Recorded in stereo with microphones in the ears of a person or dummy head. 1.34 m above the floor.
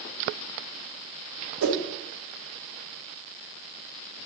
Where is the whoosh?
75° right (ahead or behind), 1.1 m.